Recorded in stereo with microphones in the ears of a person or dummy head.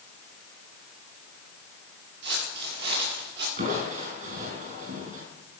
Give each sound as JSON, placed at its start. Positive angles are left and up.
{"t": 2.2, "sound": "footsteps", "side_deg": -60, "distance_m": 7.5}
{"t": 3.6, "sound": "crushing", "side_deg": -45, "distance_m": 6.0}